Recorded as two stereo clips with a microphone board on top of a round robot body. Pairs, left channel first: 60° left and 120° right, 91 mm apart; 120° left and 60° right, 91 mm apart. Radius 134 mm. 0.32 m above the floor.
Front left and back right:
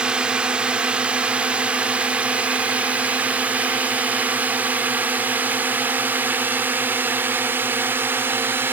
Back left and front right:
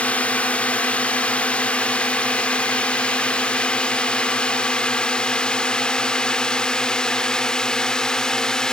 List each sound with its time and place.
0.0 s a drone: 175° left; by 8.7 s 165° right